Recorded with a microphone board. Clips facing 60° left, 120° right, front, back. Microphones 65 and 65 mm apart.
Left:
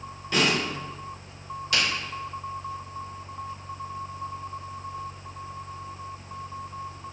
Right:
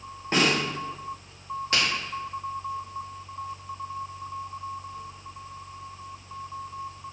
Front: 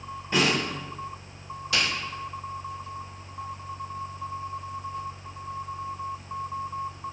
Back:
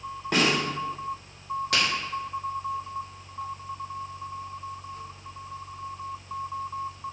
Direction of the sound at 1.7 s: 165° right.